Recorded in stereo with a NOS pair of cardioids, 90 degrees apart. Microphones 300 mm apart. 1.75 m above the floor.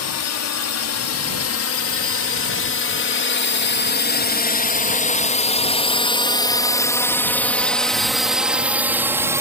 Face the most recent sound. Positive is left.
turn(degrees=-10)